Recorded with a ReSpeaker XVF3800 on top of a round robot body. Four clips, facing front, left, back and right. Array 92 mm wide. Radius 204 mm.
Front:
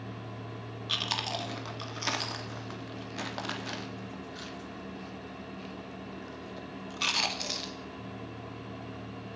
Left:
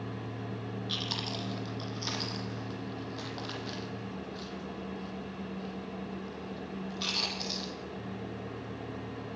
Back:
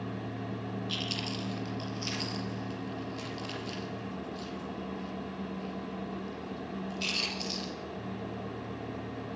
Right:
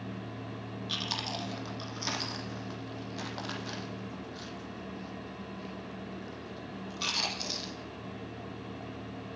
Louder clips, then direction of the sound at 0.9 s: Right 3 dB, front 2 dB; 5° right.